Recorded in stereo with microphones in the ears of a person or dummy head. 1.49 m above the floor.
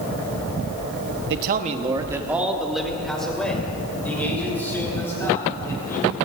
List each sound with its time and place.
1.3 s a man speaking: 60° right (ahead or behind), 0.8 m; by 6.2 s 15° left (ahead or behind), 5.5 m